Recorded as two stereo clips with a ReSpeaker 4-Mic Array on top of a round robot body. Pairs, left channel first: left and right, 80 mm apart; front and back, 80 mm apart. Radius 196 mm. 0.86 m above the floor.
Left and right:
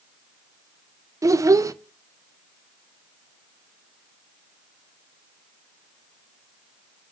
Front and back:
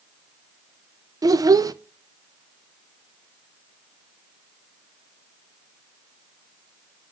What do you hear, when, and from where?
1.2 s a child speaking: 135° right, 0.5 m